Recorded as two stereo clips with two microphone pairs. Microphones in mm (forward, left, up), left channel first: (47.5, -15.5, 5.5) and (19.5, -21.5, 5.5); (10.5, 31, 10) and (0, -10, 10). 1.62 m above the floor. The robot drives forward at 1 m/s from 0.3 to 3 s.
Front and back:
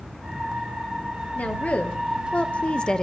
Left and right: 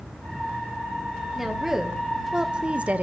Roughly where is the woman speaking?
Ahead.